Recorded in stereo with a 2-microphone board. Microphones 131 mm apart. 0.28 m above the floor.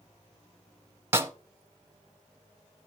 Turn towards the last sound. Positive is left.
turn(degrees=-20)  # may be behind; listen again after turning